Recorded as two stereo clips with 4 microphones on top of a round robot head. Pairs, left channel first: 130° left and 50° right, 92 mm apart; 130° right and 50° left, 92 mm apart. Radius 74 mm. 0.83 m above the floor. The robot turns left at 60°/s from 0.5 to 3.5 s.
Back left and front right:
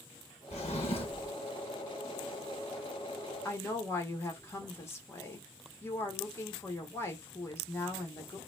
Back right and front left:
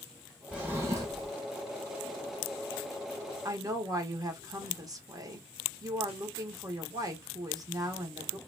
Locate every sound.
0.5 s a drawer: 130° left, 0.6 m; by 1.3 s 85° left, 0.6 m
3.5 s a woman speaking: 80° left, 1.2 m